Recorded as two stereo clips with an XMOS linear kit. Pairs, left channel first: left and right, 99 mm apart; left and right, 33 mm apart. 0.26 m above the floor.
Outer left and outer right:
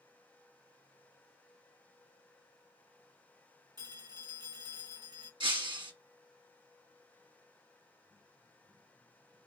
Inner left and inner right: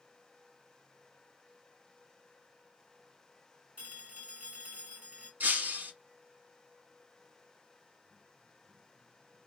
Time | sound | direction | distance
3.8 | a phone ringing | 45° right (ahead or behind) | 1.6 m
5.4 | breaking glass | 60° right (ahead or behind) | 1.0 m